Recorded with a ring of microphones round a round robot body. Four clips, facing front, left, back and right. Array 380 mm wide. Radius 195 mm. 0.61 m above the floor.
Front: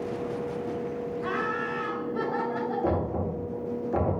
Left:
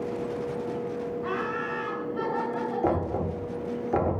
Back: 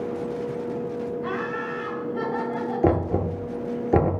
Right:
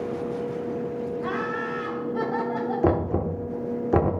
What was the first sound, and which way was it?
Laughter, 75° right.